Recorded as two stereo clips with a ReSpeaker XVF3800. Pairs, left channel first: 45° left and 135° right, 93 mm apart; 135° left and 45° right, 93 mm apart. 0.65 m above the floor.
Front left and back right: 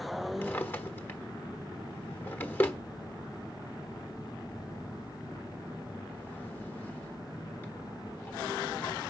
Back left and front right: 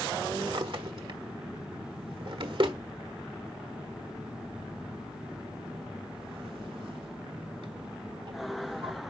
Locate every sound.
0.4 s a drawer: 20° right, 1.2 m